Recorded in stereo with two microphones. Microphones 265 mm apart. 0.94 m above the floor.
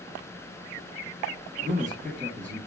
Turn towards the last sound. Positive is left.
turn(degrees=-25)  # may be behind; listen again after turning